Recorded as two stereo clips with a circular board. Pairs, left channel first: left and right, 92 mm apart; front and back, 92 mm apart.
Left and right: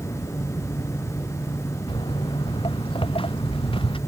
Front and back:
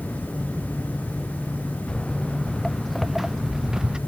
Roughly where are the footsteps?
Left.